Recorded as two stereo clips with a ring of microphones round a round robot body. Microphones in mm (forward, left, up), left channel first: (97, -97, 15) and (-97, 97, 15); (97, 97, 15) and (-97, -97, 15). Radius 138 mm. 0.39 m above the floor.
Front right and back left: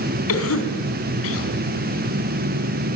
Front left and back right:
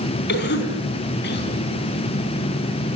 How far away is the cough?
About 3.5 m.